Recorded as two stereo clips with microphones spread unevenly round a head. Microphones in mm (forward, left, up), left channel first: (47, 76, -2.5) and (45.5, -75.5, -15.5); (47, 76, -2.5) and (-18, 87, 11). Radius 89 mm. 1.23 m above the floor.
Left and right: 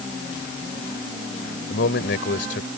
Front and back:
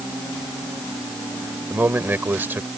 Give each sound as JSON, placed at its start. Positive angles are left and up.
{"t": 1.7, "sound": "a man speaking", "azimuth_deg": 110}